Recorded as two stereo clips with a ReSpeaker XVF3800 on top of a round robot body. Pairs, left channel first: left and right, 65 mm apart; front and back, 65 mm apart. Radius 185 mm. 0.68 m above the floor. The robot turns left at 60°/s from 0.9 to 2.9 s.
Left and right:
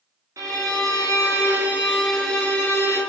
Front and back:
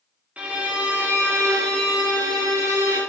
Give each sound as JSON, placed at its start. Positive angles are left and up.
{"t": 0.4, "sound": "a violin", "azimuth_deg": -110, "distance_m": 1.8}